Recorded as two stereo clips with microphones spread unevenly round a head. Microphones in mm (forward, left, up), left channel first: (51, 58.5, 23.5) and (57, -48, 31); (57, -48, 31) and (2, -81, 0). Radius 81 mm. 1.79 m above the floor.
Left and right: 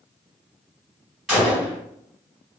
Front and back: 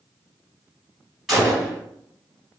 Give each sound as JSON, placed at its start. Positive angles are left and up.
{"t": 1.3, "sound": "a gunshot", "azimuth_deg": 0, "distance_m": 1.7}